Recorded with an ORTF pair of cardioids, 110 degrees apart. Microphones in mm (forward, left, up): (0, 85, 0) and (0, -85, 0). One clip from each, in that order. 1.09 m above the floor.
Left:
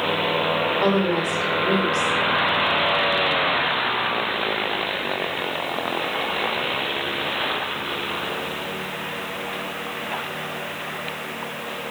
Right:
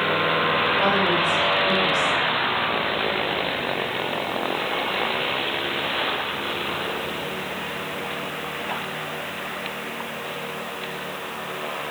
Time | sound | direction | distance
0.8 | a woman speaking | 35° left | 3 m